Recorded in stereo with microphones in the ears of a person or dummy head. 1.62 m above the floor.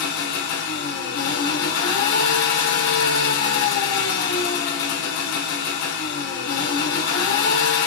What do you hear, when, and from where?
0.0 s an engine running: 60° left (ahead or behind), 2 m